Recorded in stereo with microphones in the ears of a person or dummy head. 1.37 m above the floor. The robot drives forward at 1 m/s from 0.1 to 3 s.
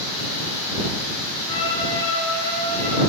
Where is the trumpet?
35° left (ahead or behind), 1.3 m; by 3.0 s 15° left (ahead or behind), 2.5 m.